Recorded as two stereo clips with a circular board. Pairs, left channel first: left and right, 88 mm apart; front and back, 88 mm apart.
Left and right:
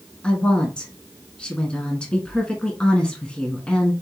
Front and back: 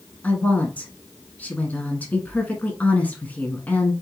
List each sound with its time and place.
0.2 s a woman speaking: 30° left, 1.0 m